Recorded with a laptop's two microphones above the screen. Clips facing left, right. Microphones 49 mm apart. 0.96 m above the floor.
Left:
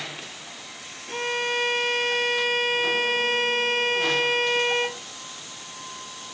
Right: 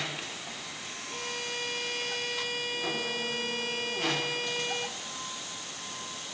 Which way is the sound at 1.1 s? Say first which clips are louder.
Left 11 dB; 50° left (ahead or behind).